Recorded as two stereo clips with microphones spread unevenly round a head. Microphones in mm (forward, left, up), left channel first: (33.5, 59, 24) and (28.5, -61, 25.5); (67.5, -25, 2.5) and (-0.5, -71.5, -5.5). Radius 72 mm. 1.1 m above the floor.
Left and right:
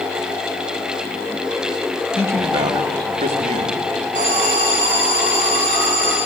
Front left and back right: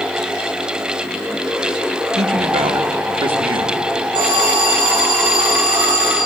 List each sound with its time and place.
2.2 s a man speaking: 165° right, 1.2 m; by 3.8 s 135° right, 2.0 m
4.2 s an alarm: 125° right, 9 m